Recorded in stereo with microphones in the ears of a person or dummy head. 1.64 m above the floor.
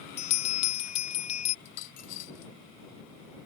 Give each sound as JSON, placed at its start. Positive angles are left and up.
{"t": 0.2, "sound": "a bell", "side_deg": 40}
{"t": 1.6, "sound": "a dropped coin", "side_deg": 45}